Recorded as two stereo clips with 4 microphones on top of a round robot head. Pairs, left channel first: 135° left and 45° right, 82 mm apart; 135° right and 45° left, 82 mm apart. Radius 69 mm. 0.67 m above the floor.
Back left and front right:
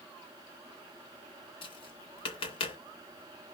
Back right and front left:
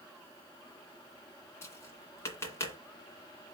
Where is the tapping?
160° left, 2 m.